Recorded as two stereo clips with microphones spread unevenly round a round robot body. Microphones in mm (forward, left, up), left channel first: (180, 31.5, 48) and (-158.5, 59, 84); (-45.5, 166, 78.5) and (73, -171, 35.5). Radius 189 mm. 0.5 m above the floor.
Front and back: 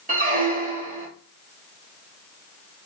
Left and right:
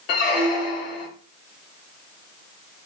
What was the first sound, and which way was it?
A squeak, 105° left.